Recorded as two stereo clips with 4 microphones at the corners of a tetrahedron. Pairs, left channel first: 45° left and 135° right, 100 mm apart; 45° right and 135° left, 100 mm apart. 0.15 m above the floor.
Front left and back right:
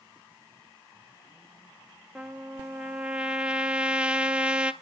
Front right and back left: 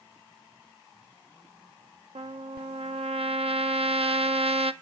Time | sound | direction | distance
2.1 | a trumpet | 145° left | 0.6 m